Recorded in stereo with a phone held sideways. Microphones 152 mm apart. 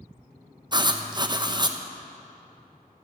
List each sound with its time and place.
0.7 s writing: 30° right (ahead or behind), 0.7 m